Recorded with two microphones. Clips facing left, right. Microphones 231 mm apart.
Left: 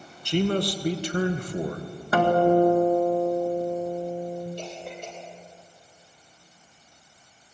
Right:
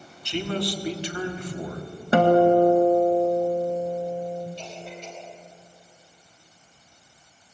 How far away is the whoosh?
No whoosh in this recording.